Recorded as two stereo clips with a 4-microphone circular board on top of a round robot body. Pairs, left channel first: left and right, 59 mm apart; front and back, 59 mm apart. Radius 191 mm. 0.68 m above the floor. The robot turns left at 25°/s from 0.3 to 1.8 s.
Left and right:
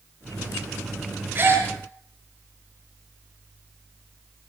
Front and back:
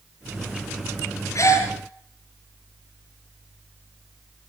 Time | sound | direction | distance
1.4 | a gasp | 35° right | 7.5 m